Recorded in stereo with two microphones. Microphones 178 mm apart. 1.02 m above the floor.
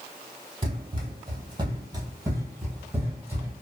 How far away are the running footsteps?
About 1.2 m.